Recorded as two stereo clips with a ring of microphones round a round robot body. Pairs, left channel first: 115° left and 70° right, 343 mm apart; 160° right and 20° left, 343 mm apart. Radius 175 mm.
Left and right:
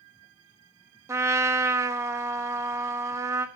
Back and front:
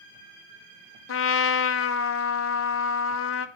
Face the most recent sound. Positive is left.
turn(degrees=-145)